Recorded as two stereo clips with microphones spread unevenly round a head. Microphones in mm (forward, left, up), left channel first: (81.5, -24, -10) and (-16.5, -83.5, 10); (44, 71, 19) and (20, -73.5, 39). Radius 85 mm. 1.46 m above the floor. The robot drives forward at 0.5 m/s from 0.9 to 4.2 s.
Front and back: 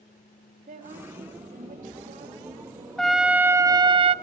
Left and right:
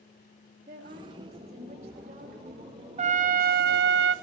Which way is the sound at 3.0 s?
55° right.